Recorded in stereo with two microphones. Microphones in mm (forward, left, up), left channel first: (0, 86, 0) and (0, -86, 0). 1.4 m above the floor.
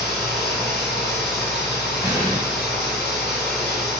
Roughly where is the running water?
Centre.